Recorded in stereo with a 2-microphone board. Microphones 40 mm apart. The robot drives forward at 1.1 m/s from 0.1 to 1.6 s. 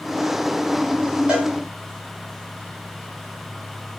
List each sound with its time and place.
1.3 s a cowbell: 20° right (ahead or behind), 1.8 m